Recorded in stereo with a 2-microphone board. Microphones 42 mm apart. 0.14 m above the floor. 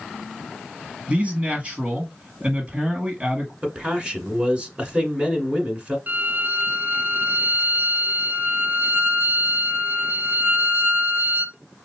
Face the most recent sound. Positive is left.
turn(degrees=-45)  # may be behind; listen again after turning